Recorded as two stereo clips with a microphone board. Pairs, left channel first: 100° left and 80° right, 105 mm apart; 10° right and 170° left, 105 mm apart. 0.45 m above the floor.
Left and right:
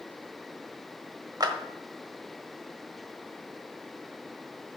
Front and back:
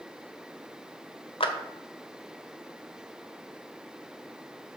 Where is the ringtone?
No ringtone in this recording.